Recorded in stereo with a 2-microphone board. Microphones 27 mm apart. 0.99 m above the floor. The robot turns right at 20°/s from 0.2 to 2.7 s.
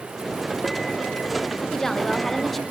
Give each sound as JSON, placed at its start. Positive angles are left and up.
{"t": 1.7, "sound": "a woman speaking", "side_deg": 10, "distance_m": 0.9}